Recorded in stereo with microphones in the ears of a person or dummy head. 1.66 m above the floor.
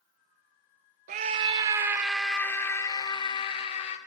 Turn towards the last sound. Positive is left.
turn(degrees=35)  # may be behind; listen again after turning